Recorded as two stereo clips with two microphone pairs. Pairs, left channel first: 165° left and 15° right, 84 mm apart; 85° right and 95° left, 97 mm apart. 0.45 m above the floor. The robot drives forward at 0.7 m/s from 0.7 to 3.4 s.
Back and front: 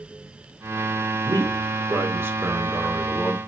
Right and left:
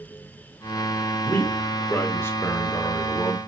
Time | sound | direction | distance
1.2 | a man speaking | 20° right | 1.5 m